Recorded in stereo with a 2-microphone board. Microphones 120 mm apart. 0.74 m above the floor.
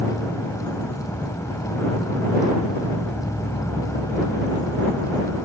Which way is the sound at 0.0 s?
25° left (ahead or behind).